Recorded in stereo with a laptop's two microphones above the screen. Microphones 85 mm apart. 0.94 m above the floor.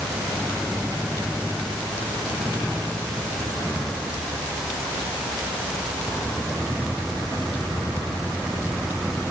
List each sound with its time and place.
Only background noise.